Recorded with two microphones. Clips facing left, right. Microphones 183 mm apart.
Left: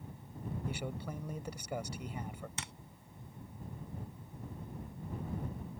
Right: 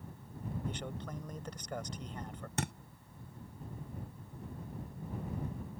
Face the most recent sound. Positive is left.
turn(degrees=-55)  # may be behind; listen again after turning